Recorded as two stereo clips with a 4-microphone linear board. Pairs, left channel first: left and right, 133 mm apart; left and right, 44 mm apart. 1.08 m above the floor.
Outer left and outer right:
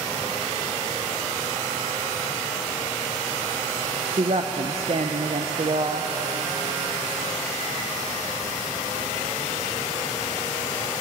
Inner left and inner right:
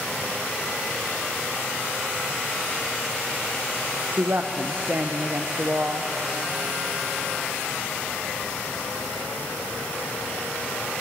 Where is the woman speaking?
50° right (ahead or behind), 0.5 m.